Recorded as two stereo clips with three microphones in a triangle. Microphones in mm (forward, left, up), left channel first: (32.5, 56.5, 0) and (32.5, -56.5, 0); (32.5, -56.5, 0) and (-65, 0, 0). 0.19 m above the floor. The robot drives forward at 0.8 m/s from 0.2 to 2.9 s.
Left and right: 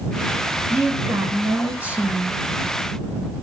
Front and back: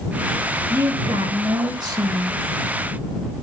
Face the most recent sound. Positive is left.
turn(degrees=-170)